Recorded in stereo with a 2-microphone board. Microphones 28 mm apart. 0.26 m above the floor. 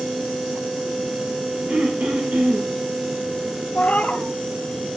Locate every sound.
1.7 s throat clearing: 70° right (ahead or behind), 9.5 m
3.8 s a cat meowing: 55° left (ahead or behind), 1.7 m